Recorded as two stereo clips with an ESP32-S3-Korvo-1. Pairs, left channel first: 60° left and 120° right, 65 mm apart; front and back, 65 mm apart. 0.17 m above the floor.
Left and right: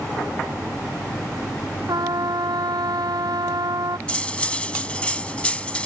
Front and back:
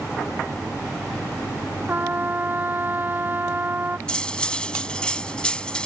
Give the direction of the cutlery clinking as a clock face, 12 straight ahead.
11 o'clock.